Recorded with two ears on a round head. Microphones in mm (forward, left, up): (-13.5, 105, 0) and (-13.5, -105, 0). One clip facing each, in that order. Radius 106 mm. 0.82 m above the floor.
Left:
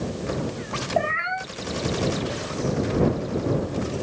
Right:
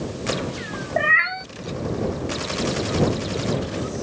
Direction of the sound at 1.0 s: 40° right (ahead or behind).